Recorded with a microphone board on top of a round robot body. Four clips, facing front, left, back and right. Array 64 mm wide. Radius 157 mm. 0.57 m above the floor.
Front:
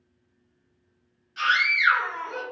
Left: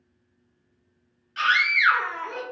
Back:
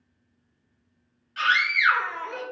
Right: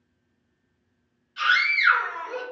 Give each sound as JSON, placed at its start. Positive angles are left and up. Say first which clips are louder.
{"t": 1.4, "sound": "a scream", "louder": "left 1 dB, even", "azimuth_deg": 115, "distance_m": 1.7}